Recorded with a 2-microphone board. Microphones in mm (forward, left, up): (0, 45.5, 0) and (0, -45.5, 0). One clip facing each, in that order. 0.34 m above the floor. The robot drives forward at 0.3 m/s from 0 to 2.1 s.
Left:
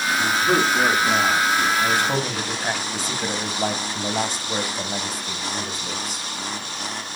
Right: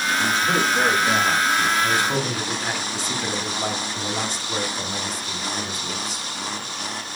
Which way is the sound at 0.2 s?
55° left (ahead or behind).